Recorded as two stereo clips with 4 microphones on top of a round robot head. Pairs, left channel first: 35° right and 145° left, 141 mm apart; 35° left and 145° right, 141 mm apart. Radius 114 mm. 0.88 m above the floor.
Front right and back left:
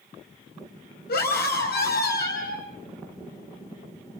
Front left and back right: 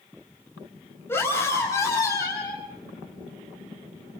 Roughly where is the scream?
Ahead right.